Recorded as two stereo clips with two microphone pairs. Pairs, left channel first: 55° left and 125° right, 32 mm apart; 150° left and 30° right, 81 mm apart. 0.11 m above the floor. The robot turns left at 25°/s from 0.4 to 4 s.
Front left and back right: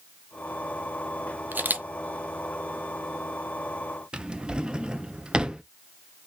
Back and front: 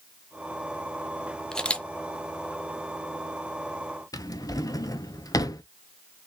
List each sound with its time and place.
1.5 s a camera shutter: 130° right, 0.6 m; by 1.9 s 135° right, 0.6 m
4.1 s a drawer: straight behind, 0.5 m